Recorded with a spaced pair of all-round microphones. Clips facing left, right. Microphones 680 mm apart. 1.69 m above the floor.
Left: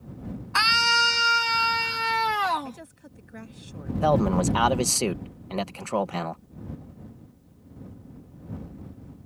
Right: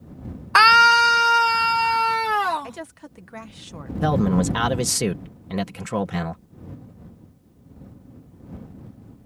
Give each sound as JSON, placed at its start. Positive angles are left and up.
{"t": 0.6, "sound": "a scream", "side_deg": -75}
{"t": 2.6, "sound": "a woman speaking", "side_deg": -85}
{"t": 4.0, "sound": "a man speaking", "side_deg": -45}